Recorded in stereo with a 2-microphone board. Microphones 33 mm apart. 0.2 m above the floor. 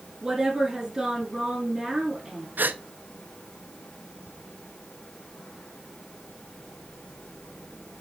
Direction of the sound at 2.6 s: 70° right (ahead or behind).